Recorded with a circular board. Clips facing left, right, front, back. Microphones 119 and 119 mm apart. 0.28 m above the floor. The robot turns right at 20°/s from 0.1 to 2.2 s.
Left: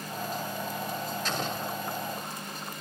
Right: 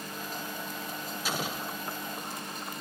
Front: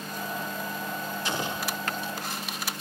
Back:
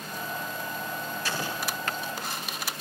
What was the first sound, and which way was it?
An explosion, 25° right.